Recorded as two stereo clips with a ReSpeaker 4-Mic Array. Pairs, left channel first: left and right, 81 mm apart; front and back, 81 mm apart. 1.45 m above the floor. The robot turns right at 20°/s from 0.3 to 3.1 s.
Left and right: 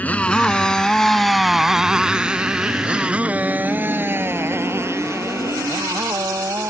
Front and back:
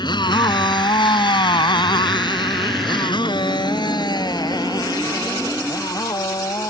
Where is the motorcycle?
20° left; by 6.7 s 40° right.